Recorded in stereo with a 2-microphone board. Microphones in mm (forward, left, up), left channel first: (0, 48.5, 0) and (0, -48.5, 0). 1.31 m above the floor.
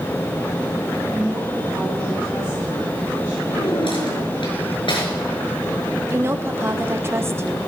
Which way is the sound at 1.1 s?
15° right (ahead or behind).